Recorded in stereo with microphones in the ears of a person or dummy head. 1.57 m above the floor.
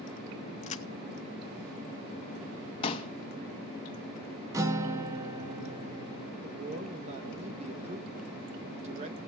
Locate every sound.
0.6 s a crack: 35° left (ahead or behind), 0.6 m
2.8 s a pop: 35° left (ahead or behind), 1.9 m
4.5 s a guitar: 20° right (ahead or behind), 1.2 m
6.4 s a man speaking: 35° right (ahead or behind), 1.5 m